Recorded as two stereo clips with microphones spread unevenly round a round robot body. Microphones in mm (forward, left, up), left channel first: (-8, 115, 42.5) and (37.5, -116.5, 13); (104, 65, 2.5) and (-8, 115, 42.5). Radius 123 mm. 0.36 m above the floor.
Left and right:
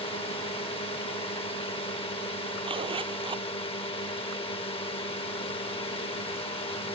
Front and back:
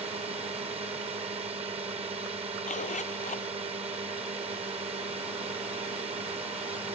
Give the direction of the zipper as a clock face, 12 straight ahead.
12 o'clock.